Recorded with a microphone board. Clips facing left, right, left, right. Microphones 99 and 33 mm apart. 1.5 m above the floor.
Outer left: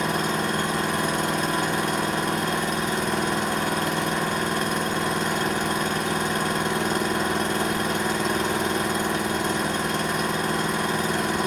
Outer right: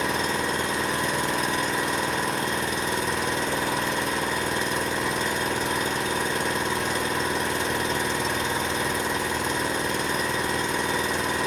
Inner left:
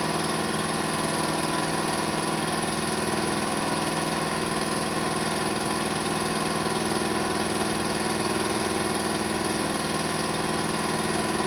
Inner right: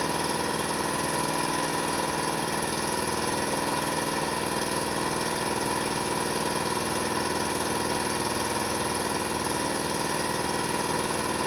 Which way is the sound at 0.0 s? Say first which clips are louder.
Outer left 1 dB, inner left 1 dB; 55° left (ahead or behind).